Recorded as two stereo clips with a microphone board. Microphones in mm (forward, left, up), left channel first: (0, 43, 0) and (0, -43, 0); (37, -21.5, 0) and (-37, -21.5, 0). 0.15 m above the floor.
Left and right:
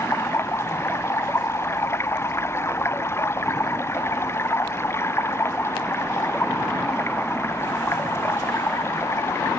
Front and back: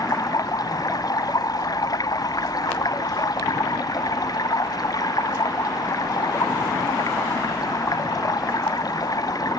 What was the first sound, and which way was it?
Running water, 30° left.